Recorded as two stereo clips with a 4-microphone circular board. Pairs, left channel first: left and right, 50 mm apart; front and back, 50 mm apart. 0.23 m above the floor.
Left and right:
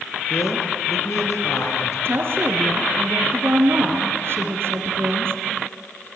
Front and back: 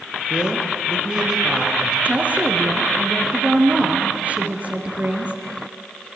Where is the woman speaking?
125° right, 4 m.